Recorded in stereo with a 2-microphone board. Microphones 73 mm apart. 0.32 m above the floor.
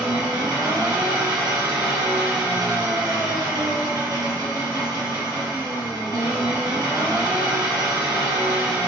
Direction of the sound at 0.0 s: 70° right (ahead or behind).